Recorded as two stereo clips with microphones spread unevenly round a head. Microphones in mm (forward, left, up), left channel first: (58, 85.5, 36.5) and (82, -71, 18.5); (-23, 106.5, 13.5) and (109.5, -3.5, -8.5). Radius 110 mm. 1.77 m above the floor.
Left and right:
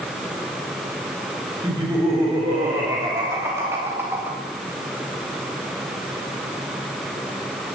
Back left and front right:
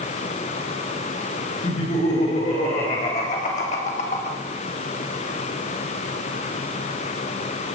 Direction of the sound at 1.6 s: 160° right.